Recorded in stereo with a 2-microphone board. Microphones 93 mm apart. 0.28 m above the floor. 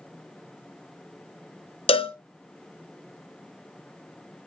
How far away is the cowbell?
About 0.5 m.